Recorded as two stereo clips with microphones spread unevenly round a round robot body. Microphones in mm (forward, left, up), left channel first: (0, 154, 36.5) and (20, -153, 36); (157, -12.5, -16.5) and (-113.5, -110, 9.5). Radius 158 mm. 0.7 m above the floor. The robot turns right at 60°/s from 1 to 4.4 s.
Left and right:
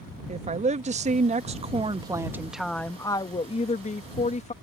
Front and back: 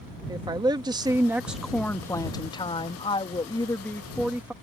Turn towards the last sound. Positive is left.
turn(degrees=110)